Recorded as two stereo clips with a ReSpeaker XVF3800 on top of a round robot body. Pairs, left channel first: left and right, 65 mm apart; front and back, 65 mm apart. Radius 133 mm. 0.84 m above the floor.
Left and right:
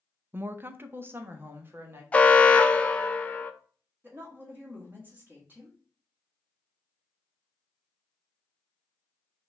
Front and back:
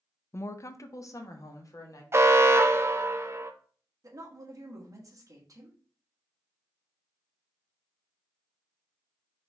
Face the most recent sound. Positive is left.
turn(degrees=-150)